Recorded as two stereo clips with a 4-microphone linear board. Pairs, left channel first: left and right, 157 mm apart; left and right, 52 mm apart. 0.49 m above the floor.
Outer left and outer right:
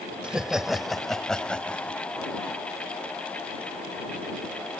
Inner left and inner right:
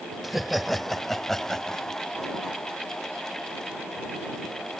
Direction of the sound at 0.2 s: 5° right (ahead or behind).